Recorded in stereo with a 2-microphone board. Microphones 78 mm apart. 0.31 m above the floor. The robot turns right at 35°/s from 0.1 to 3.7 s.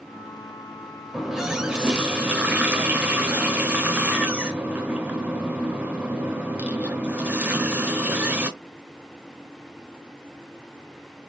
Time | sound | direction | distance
1.1 | a running tap | 5° right (ahead or behind) | 0.8 m